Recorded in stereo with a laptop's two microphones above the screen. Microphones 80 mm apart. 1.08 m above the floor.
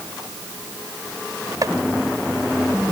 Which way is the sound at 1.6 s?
50° right (ahead or behind).